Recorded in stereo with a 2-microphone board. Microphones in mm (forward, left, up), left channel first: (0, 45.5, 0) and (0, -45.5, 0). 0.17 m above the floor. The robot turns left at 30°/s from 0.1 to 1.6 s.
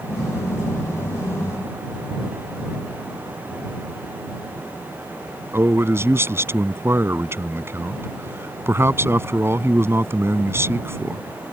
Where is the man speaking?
30° right (ahead or behind).